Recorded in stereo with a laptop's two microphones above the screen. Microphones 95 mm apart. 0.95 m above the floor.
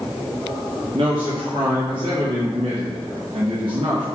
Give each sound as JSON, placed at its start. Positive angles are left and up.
{"t": 0.9, "sound": "a man speaking", "side_deg": -65, "distance_m": 0.6}